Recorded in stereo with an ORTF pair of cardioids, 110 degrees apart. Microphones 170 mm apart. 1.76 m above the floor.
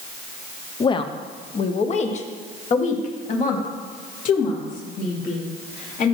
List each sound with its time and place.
0.8 s a woman speaking: 25° left, 0.8 m; by 6.1 s 55° left, 3.5 m